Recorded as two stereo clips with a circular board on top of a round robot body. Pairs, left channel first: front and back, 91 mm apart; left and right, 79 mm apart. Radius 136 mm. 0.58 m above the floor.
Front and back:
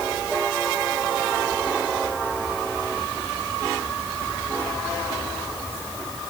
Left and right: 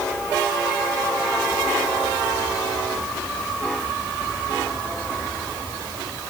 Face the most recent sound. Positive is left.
No sound to turn to.